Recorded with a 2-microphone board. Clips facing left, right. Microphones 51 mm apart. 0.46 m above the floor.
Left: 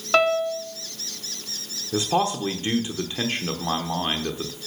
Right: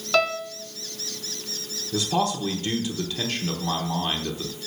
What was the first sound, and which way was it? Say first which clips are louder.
A piano: left 4 dB; 20° left (ahead or behind).